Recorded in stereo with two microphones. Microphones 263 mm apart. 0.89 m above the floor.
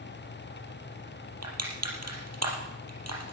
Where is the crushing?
75° right (ahead or behind), 4.5 m.